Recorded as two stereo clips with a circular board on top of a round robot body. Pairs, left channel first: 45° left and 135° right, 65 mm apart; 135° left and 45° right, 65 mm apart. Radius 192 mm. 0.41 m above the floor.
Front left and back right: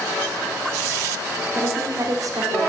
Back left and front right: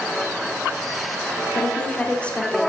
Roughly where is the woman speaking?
Behind right.